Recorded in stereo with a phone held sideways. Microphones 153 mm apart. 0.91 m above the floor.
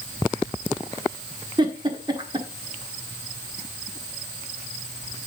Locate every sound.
1.6 s a giggle: 30° right (ahead or behind), 1.6 m